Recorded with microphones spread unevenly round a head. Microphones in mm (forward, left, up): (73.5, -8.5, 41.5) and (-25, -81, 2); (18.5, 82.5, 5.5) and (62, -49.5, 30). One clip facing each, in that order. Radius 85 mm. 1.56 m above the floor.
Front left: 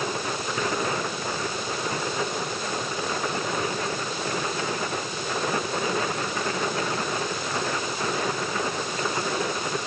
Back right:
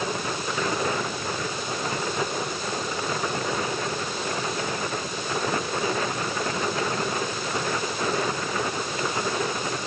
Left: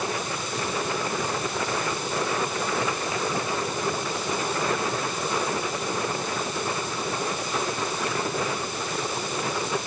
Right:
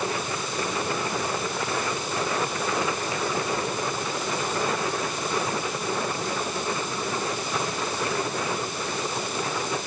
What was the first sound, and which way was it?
Only background noise.